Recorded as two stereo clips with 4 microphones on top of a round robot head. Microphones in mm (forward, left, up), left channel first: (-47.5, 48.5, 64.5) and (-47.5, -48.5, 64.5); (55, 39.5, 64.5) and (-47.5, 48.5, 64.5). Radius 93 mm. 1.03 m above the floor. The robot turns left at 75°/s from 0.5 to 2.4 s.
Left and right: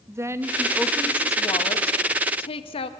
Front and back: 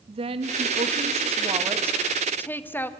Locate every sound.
0.1 s a woman speaking: 150° right, 1.3 m; by 2.9 s 65° left, 1.3 m